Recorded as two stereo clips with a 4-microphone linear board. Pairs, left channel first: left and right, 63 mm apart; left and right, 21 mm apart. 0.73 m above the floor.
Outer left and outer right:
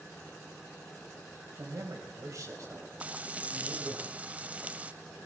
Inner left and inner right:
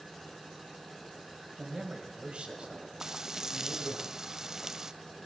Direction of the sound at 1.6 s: 65° right (ahead or behind).